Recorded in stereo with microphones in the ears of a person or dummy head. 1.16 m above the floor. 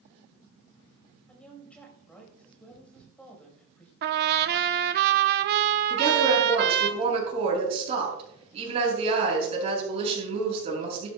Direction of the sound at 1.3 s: 5° left (ahead or behind).